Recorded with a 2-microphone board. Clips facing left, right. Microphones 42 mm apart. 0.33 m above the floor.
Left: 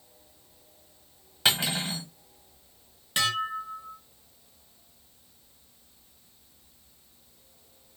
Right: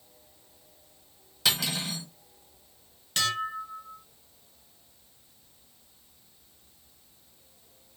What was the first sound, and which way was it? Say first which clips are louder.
Cutlery clinking: left 2 dB; 30° left (ahead or behind).